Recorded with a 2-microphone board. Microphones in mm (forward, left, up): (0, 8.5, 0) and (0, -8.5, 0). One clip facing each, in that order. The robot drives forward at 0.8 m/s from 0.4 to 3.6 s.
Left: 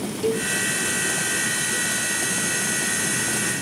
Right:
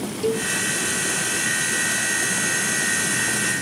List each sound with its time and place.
0.2 s a cowbell: 5° right (ahead or behind)